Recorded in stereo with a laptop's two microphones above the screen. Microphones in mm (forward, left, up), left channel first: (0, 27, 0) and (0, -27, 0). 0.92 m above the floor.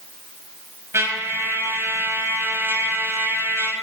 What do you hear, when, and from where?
0.9 s a trumpet: 60° right (ahead or behind), 3.5 m